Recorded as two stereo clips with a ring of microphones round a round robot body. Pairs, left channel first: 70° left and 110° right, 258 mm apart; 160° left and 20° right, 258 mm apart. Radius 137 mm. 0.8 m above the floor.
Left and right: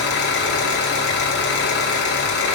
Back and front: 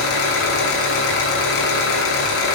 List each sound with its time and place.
0.0 s an engine running: 120° left, 4.5 m